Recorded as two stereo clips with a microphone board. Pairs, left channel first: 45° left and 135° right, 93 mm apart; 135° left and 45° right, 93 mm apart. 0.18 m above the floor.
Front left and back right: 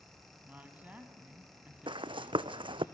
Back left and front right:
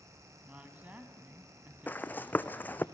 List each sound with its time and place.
0.5 s a woman speaking: 90° right, 1.5 m
1.9 s running footsteps: 155° right, 0.6 m